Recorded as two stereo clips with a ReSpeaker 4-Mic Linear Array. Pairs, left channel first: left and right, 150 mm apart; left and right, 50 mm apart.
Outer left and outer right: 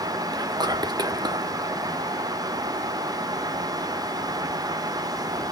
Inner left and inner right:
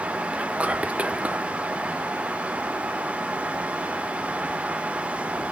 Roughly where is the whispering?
Right.